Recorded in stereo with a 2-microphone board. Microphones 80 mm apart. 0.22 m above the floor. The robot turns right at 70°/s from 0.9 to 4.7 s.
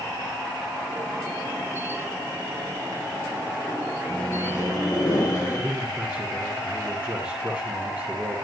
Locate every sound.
4.1 s a microwave: 10° left, 3 m; by 5.7 s 50° left, 3 m
5.4 s a man speaking: 20° right (ahead or behind), 7 m